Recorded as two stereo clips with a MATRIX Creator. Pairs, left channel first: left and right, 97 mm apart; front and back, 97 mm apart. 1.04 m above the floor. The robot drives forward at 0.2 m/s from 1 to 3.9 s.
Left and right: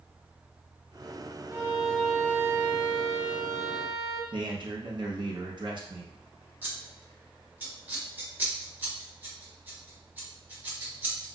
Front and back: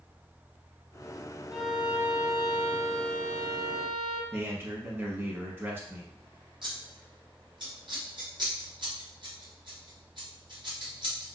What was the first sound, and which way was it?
A violin, 105° right.